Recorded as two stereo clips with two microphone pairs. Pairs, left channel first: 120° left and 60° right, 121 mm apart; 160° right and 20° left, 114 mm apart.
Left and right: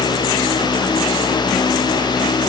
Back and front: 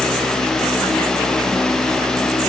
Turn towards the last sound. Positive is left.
No sound to turn to.